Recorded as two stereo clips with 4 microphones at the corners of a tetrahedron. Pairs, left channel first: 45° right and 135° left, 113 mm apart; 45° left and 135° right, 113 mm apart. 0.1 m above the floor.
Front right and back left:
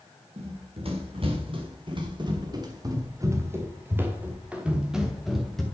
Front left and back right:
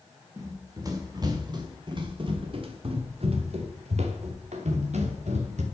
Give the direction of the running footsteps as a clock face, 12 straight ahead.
7 o'clock.